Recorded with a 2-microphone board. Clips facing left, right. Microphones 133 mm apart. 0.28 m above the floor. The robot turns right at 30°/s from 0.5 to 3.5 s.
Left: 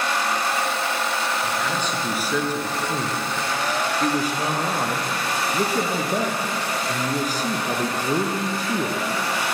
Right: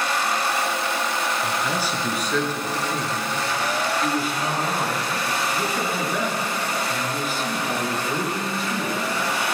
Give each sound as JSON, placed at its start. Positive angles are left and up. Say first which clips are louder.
{"t": 1.4, "sound": "a man speaking", "louder": "even", "azimuth_deg": -20, "distance_m": 4.0}